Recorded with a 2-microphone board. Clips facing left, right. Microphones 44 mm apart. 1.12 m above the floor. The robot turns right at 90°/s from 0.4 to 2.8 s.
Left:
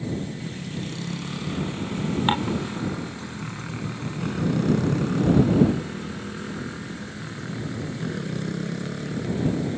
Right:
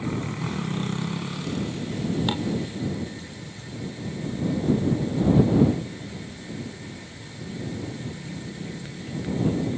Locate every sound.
0.0 s a motorcycle: 75° right (ahead or behind); by 9.8 s 85° left
2.3 s dishes clattering: 35° left (ahead or behind); by 2.6 s 60° left (ahead or behind)